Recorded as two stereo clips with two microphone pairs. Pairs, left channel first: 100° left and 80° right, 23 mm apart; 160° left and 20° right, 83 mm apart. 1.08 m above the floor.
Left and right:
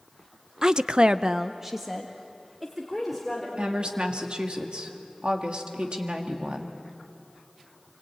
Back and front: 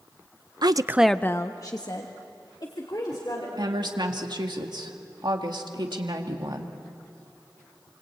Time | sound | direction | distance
0.6 | a woman speaking | 30° right | 0.7 m
3.6 | a woman speaking | 45° right | 2 m